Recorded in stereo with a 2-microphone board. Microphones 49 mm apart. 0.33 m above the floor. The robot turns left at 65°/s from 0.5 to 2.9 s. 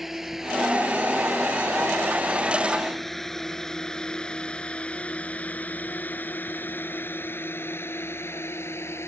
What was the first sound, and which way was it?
A drone, 5° right (ahead or behind).